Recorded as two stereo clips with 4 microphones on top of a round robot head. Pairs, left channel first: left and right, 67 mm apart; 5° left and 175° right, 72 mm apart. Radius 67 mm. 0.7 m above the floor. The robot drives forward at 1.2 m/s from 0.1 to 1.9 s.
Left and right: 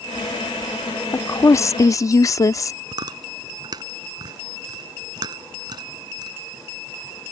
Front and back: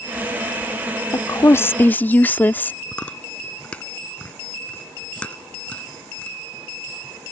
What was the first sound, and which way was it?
A woman speaking, 45° left.